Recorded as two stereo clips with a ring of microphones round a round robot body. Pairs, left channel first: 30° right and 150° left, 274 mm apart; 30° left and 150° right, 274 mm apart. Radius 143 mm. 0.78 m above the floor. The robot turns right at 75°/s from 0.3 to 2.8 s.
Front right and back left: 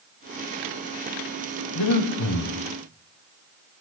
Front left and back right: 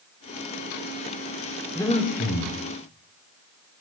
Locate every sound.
1.8 s breathing: 55° right, 1.7 m; by 2.6 s 10° left, 1.7 m